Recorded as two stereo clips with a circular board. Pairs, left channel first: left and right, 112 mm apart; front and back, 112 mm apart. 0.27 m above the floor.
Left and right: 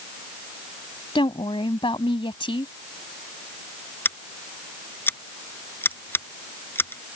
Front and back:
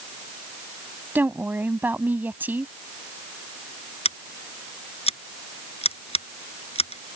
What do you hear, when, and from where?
1.1 s a woman speaking: 110° left
4.0 s scissors: 20° left